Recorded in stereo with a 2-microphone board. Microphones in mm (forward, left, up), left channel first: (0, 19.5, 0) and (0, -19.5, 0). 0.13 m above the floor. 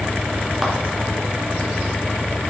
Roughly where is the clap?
Centre.